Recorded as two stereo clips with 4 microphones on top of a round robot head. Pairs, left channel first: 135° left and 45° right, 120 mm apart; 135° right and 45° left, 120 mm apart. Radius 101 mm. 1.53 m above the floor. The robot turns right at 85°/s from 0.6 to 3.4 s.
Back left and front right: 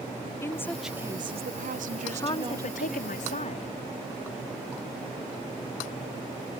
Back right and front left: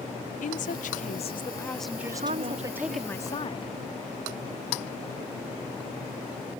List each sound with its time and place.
0.4 s a woman speaking: 150° right; by 3.0 s 55° left
2.0 s a woman speaking: 55° left; by 3.7 s 175° left